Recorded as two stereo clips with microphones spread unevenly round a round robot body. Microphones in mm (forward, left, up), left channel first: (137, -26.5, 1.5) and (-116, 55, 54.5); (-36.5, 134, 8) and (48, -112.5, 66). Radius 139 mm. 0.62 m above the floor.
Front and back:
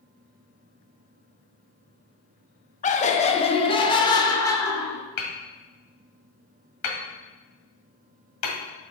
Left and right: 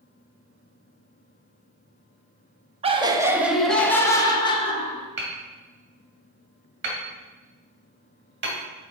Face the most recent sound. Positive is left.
turn(degrees=-25)